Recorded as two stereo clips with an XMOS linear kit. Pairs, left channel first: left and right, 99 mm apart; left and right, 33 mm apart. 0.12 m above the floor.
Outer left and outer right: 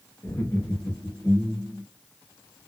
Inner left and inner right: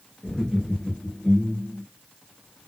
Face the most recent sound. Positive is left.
turn(degrees=30)  # may be behind; listen again after turning